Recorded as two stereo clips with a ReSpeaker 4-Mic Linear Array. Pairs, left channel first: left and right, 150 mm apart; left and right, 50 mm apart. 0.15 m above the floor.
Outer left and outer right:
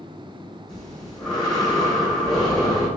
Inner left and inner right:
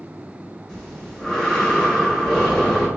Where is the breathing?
5° left (ahead or behind), 2.5 m.